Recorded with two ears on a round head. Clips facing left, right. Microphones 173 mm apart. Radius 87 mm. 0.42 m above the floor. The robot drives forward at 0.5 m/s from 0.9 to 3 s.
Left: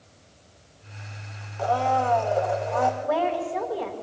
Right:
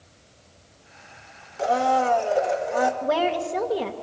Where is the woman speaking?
35° right (ahead or behind), 1.3 m.